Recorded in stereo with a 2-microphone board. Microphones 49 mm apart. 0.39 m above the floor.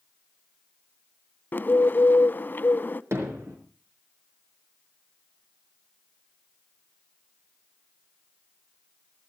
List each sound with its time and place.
1.5 s a bird: 40° left (ahead or behind), 0.5 m
3.1 s hammering: 70° right (ahead or behind), 5 m